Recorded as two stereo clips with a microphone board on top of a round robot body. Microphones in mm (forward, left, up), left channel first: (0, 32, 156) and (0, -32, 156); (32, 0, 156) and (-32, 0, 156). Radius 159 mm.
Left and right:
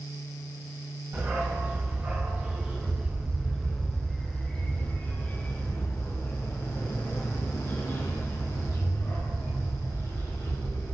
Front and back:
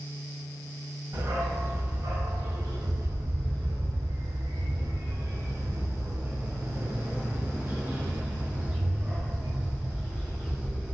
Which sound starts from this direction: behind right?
A dog barking, at 1.1 s.